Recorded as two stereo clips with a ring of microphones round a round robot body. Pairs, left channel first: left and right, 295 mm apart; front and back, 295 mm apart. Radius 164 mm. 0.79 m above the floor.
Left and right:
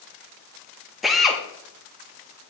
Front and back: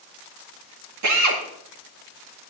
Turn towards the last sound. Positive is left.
turn(degrees=180)